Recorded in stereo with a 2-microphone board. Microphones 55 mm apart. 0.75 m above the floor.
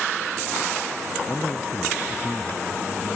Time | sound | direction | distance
1.3 | a man speaking | 45° left (ahead or behind) | ?